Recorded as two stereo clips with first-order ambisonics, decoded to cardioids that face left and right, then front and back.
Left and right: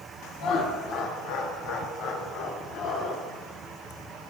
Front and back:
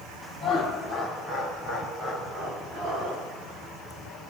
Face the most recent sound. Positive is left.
turn(degrees=135)